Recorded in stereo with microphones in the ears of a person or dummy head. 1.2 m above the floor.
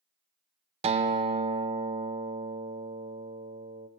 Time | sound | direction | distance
0.8 | a guitar | 25° right (ahead or behind) | 0.6 m